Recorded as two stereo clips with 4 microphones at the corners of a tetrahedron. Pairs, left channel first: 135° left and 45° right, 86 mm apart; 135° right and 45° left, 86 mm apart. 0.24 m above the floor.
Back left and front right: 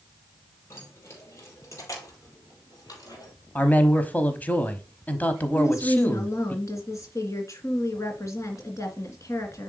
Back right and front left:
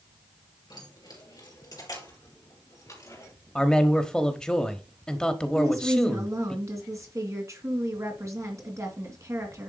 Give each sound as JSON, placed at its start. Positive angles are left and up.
{"t": 0.7, "sound": "keys jangling", "azimuth_deg": -165, "distance_m": 4.0}
{"t": 3.5, "sound": "a man speaking", "azimuth_deg": 160, "distance_m": 0.9}
{"t": 5.5, "sound": "a woman speaking", "azimuth_deg": 90, "distance_m": 2.5}